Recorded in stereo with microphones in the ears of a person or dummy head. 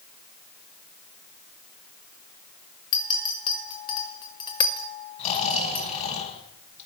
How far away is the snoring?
About 5.5 m.